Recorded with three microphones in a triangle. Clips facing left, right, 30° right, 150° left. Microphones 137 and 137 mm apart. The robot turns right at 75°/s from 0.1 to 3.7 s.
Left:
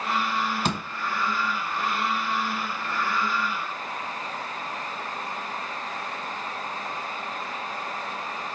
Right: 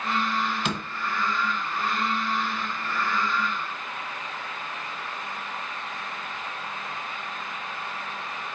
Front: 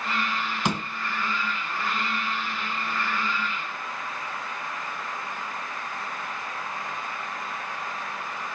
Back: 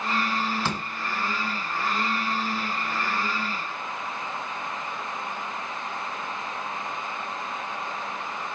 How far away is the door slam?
About 1.2 m.